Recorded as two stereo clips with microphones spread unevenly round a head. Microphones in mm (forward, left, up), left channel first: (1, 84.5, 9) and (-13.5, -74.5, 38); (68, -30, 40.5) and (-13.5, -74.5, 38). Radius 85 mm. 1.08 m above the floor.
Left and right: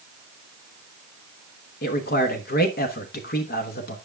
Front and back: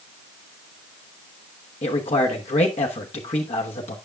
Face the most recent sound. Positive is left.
turn(degrees=50)